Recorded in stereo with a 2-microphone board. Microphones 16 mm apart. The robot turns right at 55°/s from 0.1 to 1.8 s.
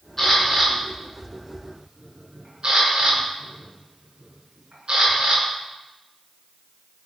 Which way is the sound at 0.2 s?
15° left (ahead or behind).